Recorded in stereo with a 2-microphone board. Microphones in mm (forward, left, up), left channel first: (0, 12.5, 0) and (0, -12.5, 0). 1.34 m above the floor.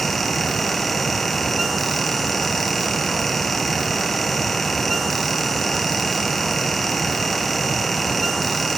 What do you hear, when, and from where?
Only background noise.